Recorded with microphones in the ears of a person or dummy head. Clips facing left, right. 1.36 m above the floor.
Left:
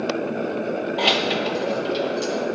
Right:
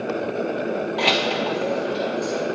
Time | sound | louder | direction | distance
1.0 | keys jangling | even | 5° left (ahead or behind) | 0.7 m